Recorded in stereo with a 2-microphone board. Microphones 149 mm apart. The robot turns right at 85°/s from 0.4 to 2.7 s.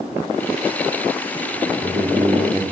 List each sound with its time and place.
1.7 s a man speaking: 70° right, 1.2 m; by 2.6 s 10° left, 1.2 m